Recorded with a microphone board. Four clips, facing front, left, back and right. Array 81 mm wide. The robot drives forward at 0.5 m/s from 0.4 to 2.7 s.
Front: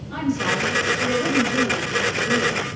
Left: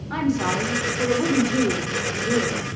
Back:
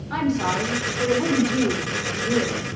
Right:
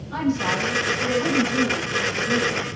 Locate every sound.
0.1 s a woman speaking: 125° left, 5.5 m; by 2.6 s 130° left, 6.5 m